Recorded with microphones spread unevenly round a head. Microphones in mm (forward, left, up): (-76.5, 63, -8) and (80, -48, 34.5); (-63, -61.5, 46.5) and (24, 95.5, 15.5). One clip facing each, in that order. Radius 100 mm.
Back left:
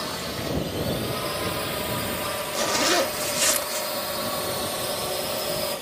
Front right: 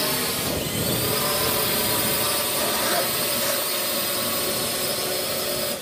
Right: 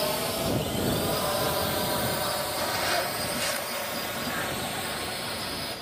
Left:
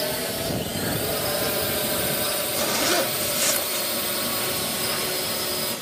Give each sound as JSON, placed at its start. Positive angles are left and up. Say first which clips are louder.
{"t": 0.0, "sound": "a drone", "louder": "front right 4 dB, left 1 dB", "azimuth_deg": -15}
{"t": 2.5, "sound": "a zipper", "louder": "back left 4 dB, left 9 dB", "azimuth_deg": 95}